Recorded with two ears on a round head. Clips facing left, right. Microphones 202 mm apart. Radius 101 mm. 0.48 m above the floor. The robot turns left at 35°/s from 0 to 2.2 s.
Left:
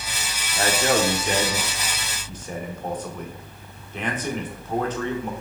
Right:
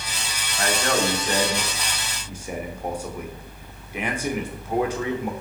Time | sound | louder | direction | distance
0.6 | a man speaking | left 2 dB | 40° left | 1.1 m